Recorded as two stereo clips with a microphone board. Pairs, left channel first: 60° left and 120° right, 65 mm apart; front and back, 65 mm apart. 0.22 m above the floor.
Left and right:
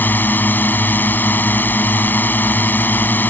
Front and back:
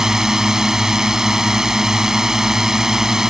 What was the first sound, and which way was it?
A drone, 105° left.